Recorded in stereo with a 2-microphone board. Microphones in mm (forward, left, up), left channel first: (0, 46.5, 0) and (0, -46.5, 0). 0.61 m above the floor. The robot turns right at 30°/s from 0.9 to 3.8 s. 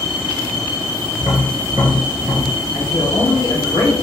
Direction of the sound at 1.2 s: 30° right (ahead or behind).